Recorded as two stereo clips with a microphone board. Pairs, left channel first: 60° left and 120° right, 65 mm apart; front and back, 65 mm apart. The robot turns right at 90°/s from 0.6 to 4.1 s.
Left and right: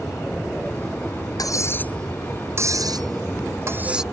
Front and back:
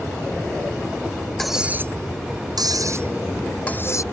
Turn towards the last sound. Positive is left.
turn(degrees=-30)